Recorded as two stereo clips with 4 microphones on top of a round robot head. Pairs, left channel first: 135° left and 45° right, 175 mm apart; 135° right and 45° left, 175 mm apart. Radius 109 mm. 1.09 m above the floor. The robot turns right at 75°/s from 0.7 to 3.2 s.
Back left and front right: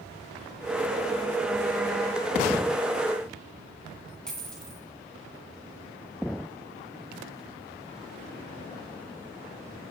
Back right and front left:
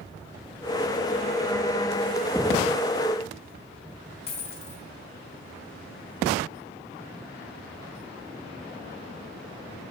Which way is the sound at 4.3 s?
140° right.